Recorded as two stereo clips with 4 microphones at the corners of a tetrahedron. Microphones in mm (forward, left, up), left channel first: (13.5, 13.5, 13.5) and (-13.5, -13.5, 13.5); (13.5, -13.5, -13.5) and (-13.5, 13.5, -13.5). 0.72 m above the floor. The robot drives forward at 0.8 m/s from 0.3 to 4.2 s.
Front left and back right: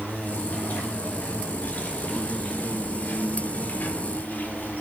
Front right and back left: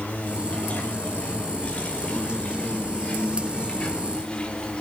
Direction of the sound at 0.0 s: 10° left.